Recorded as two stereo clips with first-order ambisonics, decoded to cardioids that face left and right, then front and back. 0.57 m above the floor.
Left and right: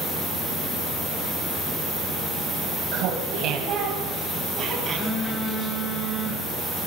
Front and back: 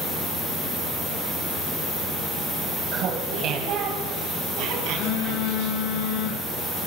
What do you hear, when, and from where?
2.9 s laughter: 125° right, 3 m; by 5.8 s 165° right, 5.5 m
4.9 s a phone buzzing: 5° left, 5.5 m